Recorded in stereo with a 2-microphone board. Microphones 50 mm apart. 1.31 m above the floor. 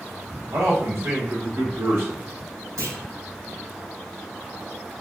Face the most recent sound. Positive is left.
turn(degrees=-80)